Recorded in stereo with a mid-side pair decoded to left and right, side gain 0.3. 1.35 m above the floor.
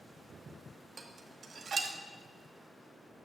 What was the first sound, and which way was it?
Dishes clattering, 65° right.